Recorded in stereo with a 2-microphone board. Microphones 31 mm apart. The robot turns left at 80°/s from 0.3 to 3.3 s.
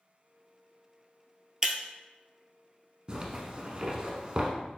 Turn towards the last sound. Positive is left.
turn(degrees=-30)  # may be behind; listen again after turning